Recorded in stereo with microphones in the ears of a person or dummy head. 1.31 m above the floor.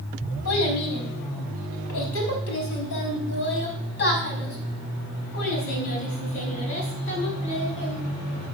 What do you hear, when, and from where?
0.5 s a child speaking: 80° left, 5.5 m; by 8.0 s 30° left (ahead or behind), 6 m